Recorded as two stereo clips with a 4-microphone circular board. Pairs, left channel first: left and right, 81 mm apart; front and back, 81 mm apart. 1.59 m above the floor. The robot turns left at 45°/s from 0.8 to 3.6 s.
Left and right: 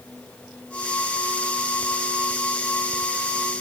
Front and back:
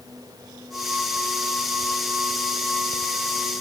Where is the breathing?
No breathing in this recording.